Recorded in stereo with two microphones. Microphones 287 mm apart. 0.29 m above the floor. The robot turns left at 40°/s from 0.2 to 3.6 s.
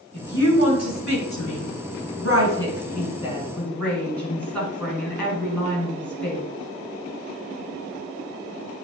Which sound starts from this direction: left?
A woman speaking, at 0.1 s.